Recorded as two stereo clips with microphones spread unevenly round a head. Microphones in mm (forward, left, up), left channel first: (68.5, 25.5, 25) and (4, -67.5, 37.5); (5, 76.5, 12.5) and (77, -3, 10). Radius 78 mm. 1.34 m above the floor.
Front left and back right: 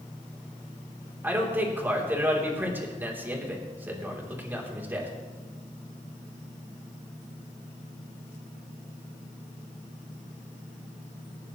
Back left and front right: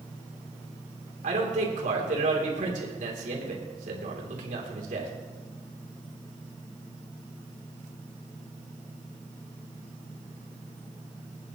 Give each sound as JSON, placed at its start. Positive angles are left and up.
{"t": 1.2, "sound": "a man speaking", "azimuth_deg": -50, "distance_m": 3.0}